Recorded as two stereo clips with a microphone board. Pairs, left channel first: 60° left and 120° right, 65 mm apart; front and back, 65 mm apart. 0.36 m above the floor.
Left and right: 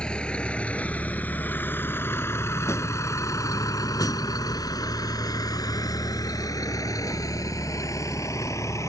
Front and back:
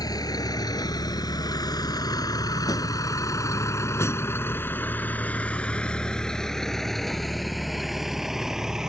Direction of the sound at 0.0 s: 15° right.